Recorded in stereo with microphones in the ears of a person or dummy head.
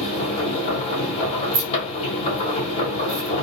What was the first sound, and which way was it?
A machine running, 35° left (ahead or behind).